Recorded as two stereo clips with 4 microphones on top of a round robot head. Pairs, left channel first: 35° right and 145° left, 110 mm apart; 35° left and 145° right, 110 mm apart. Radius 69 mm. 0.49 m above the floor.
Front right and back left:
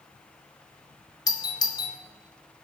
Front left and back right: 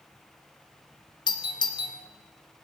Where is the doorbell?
Straight ahead, 2.5 m.